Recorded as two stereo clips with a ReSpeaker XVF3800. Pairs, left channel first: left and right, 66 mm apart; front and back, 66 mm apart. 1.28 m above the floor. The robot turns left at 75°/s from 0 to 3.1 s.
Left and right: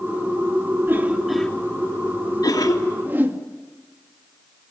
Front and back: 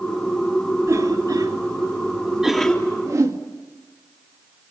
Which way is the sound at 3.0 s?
145° right.